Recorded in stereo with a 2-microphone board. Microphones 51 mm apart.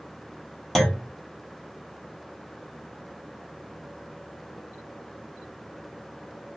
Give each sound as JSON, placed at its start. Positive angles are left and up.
{"t": 0.8, "sound": "a clunk", "side_deg": 5, "distance_m": 0.7}